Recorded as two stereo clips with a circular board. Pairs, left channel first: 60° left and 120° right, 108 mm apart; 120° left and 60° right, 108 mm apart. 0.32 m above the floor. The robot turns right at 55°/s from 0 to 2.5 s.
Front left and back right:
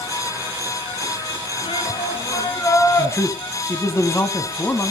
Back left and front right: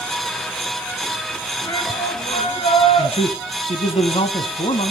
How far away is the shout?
About 3.5 m.